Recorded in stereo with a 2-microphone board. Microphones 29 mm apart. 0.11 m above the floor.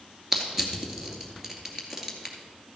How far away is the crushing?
About 2 m.